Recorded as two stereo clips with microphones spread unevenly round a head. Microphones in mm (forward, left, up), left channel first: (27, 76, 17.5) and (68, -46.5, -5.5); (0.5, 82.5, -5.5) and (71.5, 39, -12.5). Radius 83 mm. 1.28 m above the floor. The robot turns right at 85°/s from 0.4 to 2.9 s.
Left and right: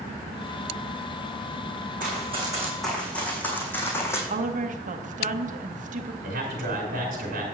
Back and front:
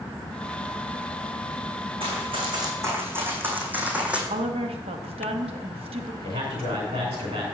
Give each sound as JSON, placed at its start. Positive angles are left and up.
{"t": 2.0, "sound": "running footsteps", "azimuth_deg": -55, "distance_m": 3.5}
{"t": 4.3, "sound": "a woman speaking", "azimuth_deg": -45, "distance_m": 0.9}
{"t": 6.2, "sound": "a man speaking", "azimuth_deg": -65, "distance_m": 2.5}